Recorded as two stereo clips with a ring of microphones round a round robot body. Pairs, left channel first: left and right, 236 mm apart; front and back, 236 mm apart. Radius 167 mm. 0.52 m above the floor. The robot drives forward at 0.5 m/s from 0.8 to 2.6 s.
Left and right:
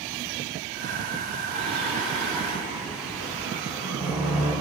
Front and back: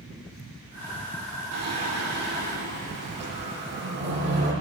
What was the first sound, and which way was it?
Singing, 175° left.